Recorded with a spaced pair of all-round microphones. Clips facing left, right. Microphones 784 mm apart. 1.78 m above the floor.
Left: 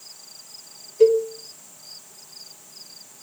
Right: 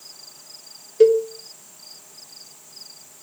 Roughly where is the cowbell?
Right.